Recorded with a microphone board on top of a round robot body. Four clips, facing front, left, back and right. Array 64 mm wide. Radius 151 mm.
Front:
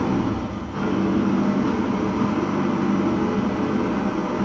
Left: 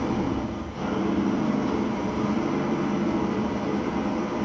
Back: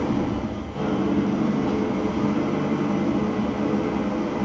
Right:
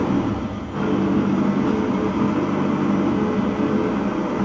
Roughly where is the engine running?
Ahead right.